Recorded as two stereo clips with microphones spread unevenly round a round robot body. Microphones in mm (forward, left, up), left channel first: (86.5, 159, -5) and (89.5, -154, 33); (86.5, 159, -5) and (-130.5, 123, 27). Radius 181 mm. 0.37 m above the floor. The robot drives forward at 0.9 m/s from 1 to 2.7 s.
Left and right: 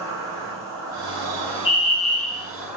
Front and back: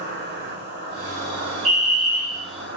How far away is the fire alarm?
About 2 m.